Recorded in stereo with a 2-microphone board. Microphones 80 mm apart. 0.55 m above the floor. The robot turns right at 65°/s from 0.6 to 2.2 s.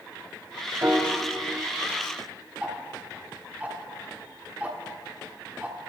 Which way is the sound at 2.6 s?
20° right (ahead or behind).